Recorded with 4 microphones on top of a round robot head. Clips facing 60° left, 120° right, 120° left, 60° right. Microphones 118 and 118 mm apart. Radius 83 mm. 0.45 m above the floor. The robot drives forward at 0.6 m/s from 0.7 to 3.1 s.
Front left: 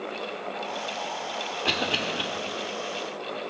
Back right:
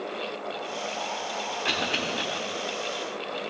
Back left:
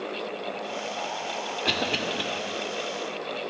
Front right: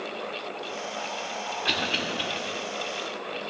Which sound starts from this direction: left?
A cough, at 1.6 s.